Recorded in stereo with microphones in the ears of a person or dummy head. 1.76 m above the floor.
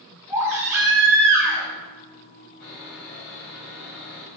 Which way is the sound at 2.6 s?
55° left (ahead or behind).